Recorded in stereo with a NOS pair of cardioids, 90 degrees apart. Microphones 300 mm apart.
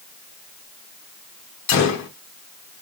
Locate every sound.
1.7 s a gunshot: 60° left, 1.4 m